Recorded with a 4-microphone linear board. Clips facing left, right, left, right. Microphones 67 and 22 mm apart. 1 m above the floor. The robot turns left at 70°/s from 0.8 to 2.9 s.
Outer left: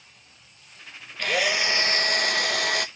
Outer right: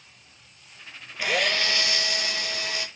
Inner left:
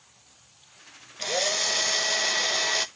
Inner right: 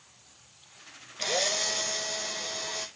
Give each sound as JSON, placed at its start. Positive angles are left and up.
{"t": 1.2, "sound": "a drill", "azimuth_deg": -170, "distance_m": 0.6}